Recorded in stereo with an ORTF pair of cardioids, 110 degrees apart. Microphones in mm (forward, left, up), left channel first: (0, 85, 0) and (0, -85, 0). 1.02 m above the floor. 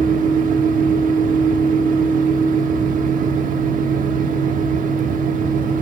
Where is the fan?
55° right, 1.3 m.